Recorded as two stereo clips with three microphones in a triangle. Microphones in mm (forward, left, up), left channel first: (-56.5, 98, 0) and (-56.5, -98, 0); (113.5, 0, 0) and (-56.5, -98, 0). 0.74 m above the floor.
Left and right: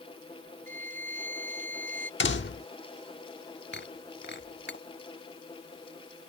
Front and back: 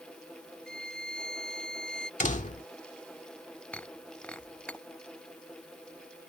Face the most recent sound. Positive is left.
turn(degrees=115)